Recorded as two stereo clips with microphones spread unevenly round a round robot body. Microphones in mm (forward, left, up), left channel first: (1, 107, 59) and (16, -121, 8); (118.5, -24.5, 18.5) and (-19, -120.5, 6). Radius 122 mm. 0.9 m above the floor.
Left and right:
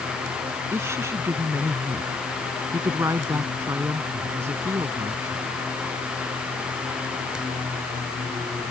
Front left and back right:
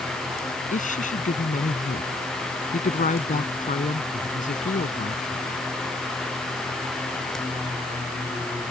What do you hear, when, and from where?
0.7 s a woman speaking: 5° right